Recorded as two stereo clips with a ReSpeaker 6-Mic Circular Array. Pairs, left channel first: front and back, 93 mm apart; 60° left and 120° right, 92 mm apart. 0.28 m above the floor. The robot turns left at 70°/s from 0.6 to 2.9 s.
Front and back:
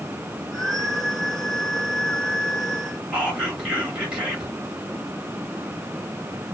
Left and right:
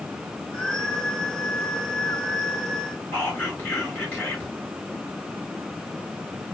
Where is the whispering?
110° left, 1.0 m.